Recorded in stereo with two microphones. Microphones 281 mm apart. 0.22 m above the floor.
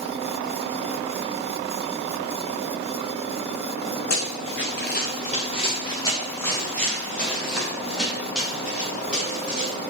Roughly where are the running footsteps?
Left.